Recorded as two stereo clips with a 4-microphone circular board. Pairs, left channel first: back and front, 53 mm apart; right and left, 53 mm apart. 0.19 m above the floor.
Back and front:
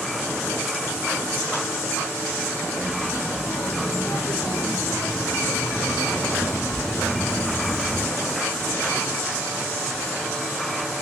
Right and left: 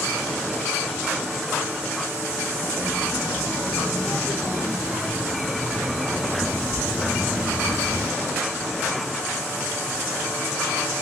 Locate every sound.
2.8 s a child speaking: 175° right, 7 m; by 8.1 s 130° left, 2 m